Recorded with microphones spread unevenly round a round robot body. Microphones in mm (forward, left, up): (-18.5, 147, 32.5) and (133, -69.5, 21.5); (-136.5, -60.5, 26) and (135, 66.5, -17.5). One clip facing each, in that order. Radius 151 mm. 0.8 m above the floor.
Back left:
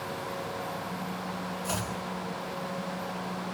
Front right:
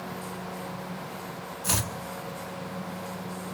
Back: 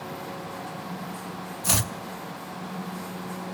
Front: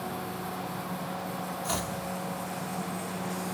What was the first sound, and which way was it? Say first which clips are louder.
Chopping: front right 4 dB, back 5 dB; 115° right.